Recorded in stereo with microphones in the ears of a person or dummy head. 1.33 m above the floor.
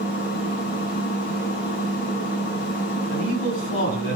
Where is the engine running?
60° left (ahead or behind), 7.5 m.